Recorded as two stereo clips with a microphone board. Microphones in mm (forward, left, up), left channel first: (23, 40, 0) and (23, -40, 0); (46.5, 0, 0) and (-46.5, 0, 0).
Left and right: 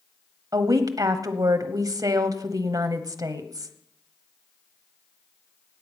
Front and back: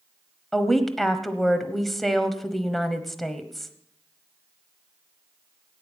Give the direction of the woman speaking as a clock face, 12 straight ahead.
3 o'clock.